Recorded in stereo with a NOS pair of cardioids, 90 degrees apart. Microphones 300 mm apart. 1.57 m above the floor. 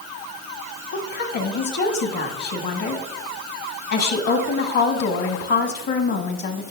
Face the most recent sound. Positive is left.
turn(degrees=60)